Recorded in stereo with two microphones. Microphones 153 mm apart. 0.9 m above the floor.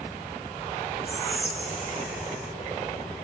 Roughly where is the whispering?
Centre.